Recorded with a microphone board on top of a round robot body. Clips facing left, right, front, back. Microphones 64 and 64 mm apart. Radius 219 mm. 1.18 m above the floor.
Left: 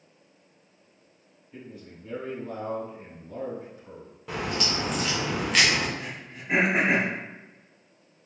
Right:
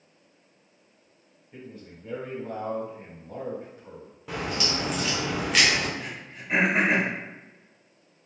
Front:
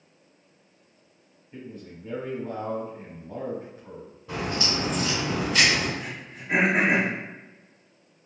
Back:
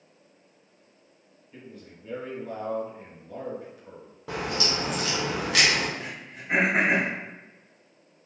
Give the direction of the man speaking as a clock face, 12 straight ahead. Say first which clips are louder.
Even, front 5 dB; 2 o'clock.